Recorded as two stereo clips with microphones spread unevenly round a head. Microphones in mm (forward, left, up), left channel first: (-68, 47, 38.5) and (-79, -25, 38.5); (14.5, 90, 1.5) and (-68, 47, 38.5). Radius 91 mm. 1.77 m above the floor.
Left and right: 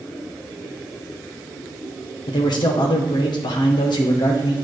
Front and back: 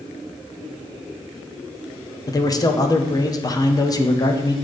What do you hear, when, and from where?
2.3 s a man speaking: 85° left, 0.8 m